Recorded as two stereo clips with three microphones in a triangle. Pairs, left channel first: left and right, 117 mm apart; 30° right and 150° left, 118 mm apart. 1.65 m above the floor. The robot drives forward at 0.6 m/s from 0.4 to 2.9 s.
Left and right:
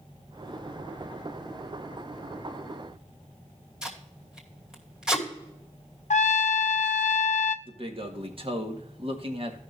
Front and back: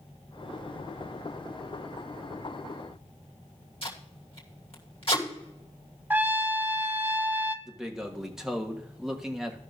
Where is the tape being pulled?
10° right, 2.5 m.